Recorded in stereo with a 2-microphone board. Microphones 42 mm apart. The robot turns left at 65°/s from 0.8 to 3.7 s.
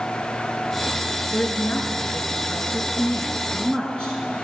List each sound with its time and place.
1.3 s a woman speaking: 175° left, 5.5 m; by 4.5 s 20° left, 5.5 m